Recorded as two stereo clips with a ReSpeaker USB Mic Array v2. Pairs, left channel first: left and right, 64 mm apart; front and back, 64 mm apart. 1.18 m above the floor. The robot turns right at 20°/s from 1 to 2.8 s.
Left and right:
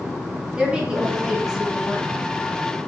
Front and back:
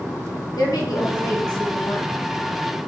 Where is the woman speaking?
15° right, 1.2 m; by 2.1 s 5° left, 1.2 m.